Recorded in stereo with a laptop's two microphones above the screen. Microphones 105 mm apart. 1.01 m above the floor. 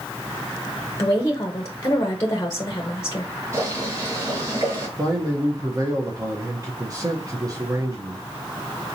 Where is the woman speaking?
30° left (ahead or behind), 0.7 m.